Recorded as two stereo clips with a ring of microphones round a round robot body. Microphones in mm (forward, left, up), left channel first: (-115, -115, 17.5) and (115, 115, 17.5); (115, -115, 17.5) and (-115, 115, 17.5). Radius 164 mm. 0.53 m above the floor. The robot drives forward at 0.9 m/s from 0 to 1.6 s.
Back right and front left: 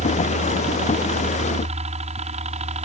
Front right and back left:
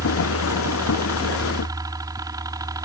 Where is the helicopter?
70° left; by 2.9 s 75° left.